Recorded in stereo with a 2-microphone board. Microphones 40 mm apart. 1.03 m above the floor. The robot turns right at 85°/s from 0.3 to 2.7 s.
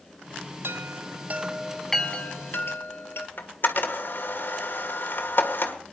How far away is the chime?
About 1.9 m.